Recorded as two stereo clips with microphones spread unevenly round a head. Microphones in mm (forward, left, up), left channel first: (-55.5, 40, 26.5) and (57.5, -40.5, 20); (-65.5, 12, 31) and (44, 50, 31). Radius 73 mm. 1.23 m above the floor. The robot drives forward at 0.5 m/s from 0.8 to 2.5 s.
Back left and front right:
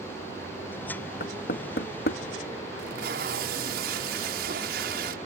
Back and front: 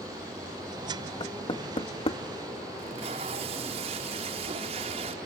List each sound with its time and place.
1.2 s knocking: 155° left; by 2.2 s 160° left
2.8 s tape being pulled: 25° right